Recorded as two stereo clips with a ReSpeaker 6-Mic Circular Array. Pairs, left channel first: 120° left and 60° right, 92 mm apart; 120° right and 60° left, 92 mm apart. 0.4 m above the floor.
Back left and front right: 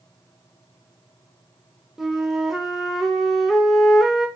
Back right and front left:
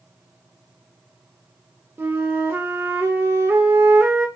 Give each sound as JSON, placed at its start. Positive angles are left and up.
{"t": 2.0, "sound": "a flute", "azimuth_deg": 25, "distance_m": 0.7}